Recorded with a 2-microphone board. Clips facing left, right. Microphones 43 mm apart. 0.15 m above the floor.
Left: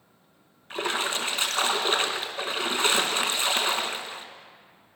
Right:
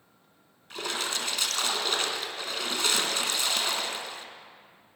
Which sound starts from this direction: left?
A splash, at 0.7 s.